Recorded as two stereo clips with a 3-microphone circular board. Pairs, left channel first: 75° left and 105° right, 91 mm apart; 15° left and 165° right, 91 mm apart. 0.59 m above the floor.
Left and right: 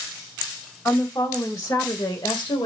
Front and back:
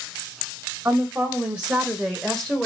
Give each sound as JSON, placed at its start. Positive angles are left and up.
{"t": 0.8, "sound": "a woman speaking", "azimuth_deg": 130, "distance_m": 2.5}